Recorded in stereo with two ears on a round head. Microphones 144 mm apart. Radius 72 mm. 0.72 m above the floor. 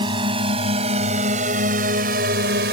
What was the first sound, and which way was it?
A drone, 30° right (ahead or behind).